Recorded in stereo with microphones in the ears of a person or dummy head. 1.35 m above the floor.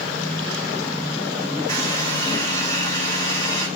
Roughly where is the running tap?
Centre.